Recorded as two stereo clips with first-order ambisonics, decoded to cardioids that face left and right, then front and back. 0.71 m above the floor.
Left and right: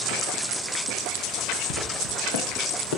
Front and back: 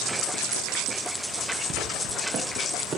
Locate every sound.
1.7 s footsteps: 120° left, 6.5 m; by 3.0 s 100° left, 6.5 m